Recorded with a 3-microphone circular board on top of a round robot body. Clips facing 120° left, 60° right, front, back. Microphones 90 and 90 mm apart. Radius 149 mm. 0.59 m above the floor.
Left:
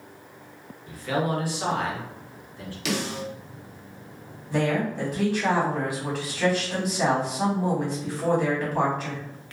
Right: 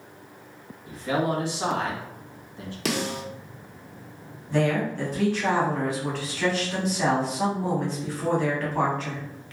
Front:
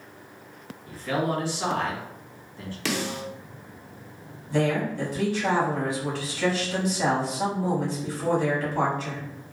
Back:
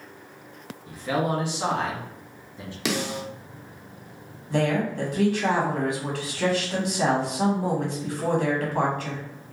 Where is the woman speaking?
160° right, 1.9 m.